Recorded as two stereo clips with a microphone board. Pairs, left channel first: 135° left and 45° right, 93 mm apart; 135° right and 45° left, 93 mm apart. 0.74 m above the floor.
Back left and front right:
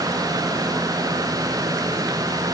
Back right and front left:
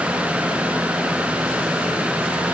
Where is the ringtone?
No ringtone in this recording.